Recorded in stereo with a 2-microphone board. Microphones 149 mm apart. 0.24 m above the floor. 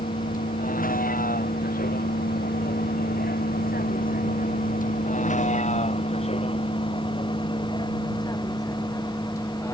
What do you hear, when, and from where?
0.0 s a vehicle: 65° left (ahead or behind); by 9.7 s 15° left (ahead or behind)